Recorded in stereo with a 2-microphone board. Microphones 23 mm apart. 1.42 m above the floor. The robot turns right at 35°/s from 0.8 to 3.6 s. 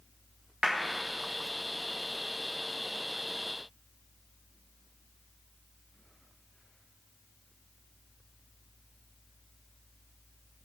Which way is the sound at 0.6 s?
30° right (ahead or behind).